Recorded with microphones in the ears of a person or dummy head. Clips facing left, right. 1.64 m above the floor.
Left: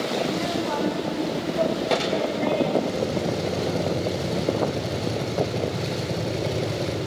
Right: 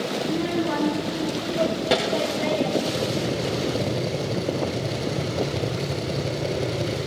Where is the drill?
5° right (ahead or behind), 6.5 m.